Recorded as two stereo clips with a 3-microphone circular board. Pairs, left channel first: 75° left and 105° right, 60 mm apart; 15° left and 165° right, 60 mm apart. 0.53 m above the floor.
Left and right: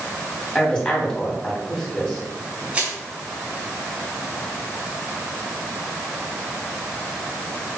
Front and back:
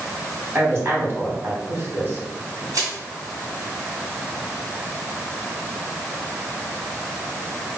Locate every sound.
0.6 s a woman speaking: 150° left, 3 m
2.7 s crushing: 175° right, 3.5 m